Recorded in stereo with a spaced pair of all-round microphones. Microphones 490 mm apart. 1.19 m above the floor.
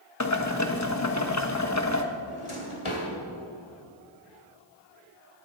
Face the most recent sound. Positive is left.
turn(degrees=75)  # may be behind; listen again after turning